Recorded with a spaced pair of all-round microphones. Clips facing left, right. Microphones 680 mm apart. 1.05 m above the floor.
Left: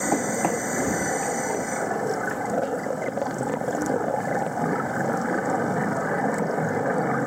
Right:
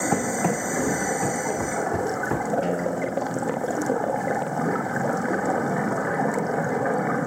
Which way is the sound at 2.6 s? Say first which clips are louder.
Right 2 dB; 85° right.